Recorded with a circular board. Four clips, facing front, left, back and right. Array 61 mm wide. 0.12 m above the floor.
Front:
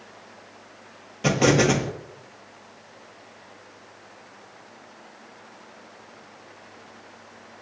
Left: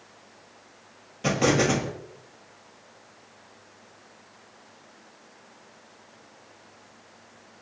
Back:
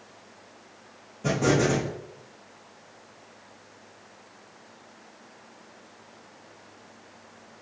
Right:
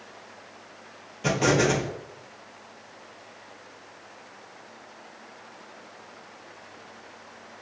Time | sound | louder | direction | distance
1.2 | an explosion | even, front 4 dB | 5° left | 1.1 m